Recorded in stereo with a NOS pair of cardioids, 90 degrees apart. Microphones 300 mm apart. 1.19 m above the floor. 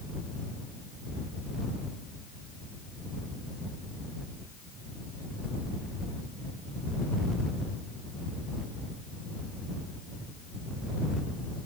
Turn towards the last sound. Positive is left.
No sound to turn to.